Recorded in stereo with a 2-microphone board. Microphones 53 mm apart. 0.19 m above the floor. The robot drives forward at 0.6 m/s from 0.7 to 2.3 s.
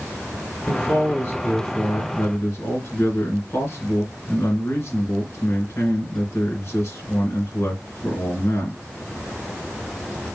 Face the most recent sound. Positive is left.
turn(degrees=55)  # may be behind; listen again after turning